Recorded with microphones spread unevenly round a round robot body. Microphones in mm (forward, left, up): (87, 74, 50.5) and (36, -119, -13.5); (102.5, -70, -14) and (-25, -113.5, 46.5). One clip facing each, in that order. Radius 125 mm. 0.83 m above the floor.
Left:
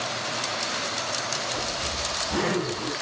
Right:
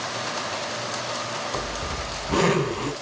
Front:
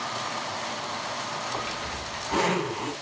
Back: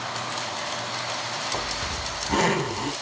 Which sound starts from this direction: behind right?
A zipper, at 1.5 s.